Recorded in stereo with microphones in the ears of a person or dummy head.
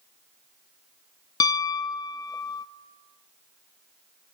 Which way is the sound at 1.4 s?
20° left (ahead or behind).